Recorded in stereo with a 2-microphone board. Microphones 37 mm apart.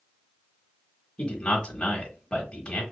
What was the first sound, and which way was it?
A man speaking, 25° left (ahead or behind).